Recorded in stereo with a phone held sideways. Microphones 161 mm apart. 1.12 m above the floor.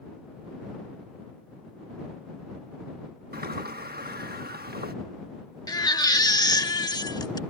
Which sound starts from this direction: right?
A sliding door, at 3.3 s.